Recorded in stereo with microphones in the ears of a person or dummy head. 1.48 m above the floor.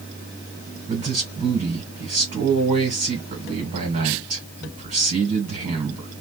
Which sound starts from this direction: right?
A man speaking, at 0.9 s.